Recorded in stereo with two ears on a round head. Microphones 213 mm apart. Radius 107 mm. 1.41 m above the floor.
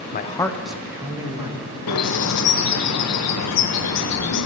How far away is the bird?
About 1.1 m.